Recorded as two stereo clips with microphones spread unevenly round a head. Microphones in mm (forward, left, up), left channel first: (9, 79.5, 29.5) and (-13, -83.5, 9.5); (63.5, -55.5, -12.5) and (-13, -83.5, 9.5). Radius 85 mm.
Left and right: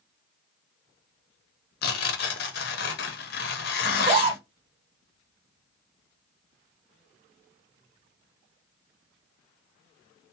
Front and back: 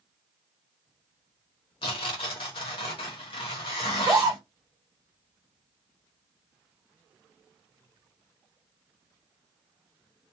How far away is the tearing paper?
About 0.7 m.